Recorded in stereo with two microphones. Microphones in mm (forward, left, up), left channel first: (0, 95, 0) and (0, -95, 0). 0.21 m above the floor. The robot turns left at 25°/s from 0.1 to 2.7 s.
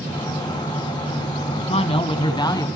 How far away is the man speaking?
About 1.6 m.